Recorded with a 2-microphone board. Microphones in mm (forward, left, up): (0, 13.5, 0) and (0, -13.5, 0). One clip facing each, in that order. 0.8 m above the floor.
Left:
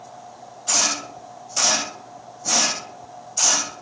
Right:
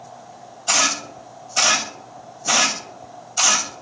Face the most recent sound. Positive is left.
turn(degrees=-65)  # may be behind; listen again after turning